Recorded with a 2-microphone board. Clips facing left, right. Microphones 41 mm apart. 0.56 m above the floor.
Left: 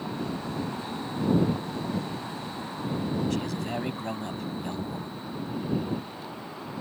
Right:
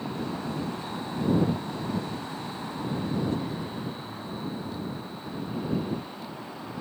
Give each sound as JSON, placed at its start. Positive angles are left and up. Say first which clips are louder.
{"t": 3.3, "sound": "a man speaking", "louder": "left 1 dB", "side_deg": 75}